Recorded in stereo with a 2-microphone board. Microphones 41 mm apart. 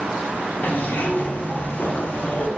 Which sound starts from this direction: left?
A zipper, at 0.6 s.